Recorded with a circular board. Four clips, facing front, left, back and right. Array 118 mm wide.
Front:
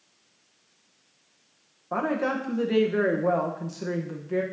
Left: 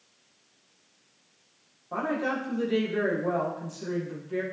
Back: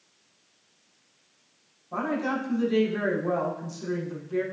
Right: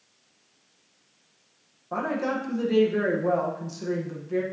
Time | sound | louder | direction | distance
1.9 | a woman speaking | right 1 dB, front 2 dB | 10° right | 1.7 m